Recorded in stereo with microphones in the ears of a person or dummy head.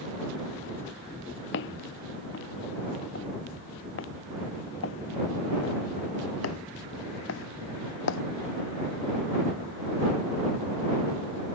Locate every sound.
1.5 s footsteps: 65° left (ahead or behind); by 8.2 s 70° left (ahead or behind)